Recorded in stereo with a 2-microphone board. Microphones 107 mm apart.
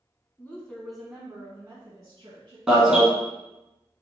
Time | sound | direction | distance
0.4 | a woman speaking | 20° left (ahead or behind) | 1.1 m
2.7 | an alarm | 5° right (ahead or behind) | 1.6 m